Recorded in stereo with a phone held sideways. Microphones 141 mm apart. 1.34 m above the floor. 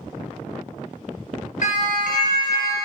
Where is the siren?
65° left (ahead or behind), 6.5 m; by 2.8 s 70° left (ahead or behind), 5.5 m.